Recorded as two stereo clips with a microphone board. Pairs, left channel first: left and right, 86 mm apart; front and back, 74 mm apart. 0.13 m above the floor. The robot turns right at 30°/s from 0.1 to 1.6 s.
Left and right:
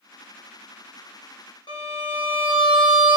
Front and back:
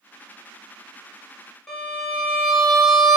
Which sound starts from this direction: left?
A violin, at 1.7 s.